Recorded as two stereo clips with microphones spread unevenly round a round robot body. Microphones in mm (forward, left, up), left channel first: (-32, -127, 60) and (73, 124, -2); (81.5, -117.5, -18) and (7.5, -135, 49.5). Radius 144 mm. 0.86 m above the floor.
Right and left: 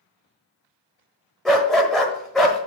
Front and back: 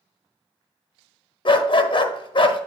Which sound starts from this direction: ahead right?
A dog barking, at 1.4 s.